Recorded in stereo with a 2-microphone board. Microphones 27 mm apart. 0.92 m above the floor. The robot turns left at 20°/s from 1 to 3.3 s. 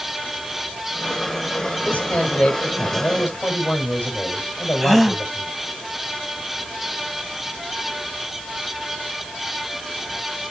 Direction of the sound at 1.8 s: 70° left (ahead or behind).